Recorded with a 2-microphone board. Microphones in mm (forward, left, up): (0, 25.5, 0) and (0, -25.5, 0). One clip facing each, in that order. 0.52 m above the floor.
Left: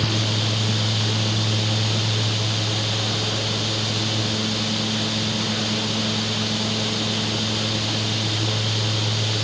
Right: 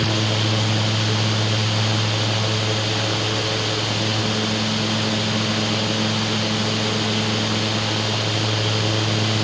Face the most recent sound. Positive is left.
No sound to turn to.